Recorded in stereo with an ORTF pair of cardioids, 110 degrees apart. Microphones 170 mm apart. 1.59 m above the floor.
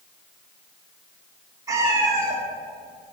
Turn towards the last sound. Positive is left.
turn(degrees=-20)